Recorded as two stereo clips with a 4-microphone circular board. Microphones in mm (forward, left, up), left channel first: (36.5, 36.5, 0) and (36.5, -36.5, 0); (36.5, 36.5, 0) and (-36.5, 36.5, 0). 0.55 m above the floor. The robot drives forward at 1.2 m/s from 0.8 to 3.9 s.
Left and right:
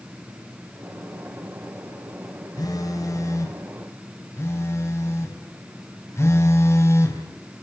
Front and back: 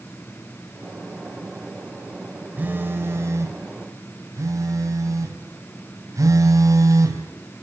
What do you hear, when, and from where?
2.6 s a phone buzzing: 115° left, 2.5 m; by 7.2 s 140° left, 3.5 m